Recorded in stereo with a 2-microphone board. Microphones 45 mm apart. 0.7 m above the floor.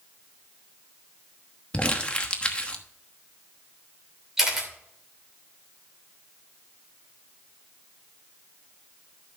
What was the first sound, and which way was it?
Crumpling, 25° left (ahead or behind).